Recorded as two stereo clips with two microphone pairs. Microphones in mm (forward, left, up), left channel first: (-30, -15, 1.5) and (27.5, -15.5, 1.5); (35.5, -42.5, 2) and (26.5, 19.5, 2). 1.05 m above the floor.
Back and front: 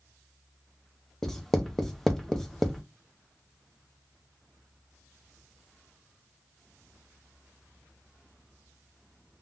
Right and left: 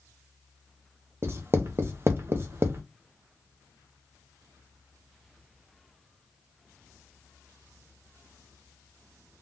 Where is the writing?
95° left, 0.5 m.